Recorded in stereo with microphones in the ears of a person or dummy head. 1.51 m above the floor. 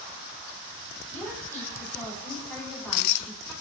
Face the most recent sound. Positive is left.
turn(degrees=10)  # may be behind; listen again after turning